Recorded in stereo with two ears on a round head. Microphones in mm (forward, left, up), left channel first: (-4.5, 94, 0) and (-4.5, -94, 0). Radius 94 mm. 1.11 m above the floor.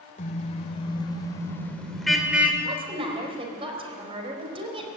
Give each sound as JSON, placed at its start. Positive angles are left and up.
{"t": 0.2, "sound": "a car horn", "side_deg": 35, "distance_m": 2.5}
{"t": 2.6, "sound": "a woman speaking", "side_deg": -25, "distance_m": 4.5}